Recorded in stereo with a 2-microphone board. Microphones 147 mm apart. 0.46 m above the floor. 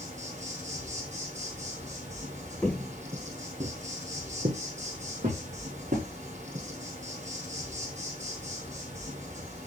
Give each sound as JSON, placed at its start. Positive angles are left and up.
{"t": 0.0, "sound": "an insect", "side_deg": -55, "distance_m": 1.7}
{"t": 2.6, "sound": "footsteps", "side_deg": 10, "distance_m": 0.6}